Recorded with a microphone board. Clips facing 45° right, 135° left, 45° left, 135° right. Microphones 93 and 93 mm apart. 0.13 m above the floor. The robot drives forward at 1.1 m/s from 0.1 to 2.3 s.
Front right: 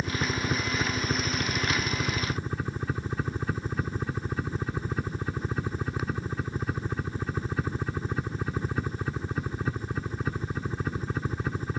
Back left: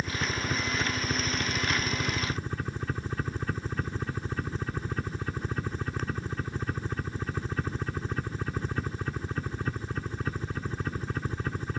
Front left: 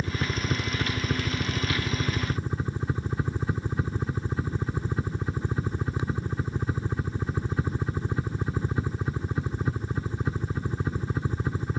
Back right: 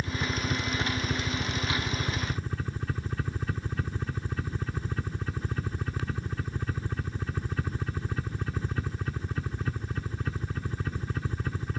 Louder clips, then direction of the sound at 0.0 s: Front right 2 dB, front left 1 dB; 15° left.